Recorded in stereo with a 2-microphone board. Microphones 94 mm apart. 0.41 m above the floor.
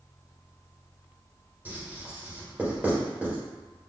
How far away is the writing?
About 1.1 m.